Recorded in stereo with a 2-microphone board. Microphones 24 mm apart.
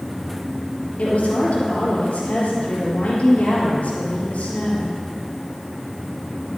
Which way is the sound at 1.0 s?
65° left (ahead or behind).